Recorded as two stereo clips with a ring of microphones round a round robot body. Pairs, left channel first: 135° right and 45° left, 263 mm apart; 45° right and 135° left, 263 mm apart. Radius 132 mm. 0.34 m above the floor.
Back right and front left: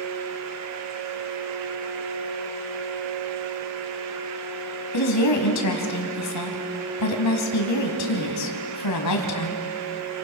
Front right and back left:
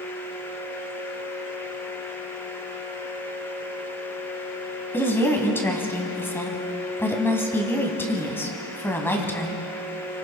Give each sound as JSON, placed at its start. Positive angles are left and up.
{"t": 4.9, "sound": "a woman speaking", "azimuth_deg": -125, "distance_m": 2.5}